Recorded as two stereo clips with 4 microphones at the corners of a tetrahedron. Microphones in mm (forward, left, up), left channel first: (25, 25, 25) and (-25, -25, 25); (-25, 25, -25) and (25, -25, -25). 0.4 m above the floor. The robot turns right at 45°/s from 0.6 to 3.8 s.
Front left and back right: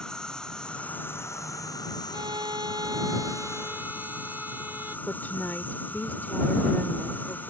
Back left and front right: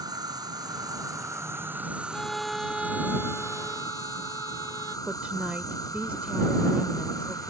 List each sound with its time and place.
0.0 s an insect: 35° right; by 7.5 s 110° left
2.1 s a violin: 150° right; by 5.0 s 75° right
5.1 s a woman speaking: 10° left